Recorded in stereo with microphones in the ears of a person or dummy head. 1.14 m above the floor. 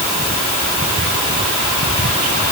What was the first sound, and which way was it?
Only background noise.